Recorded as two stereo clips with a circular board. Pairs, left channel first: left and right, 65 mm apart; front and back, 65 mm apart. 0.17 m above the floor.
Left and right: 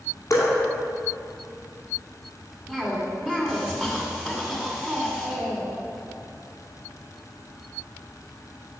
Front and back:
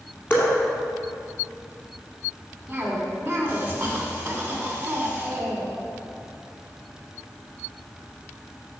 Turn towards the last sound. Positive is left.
turn(degrees=-155)